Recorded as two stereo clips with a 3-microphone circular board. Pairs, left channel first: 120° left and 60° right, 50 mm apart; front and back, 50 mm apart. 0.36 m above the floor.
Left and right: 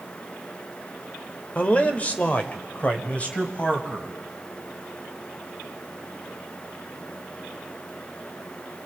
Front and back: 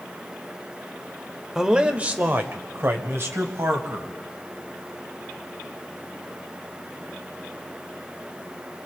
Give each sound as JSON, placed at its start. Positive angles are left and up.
{"t": 1.6, "sound": "a man speaking", "azimuth_deg": 110, "distance_m": 1.1}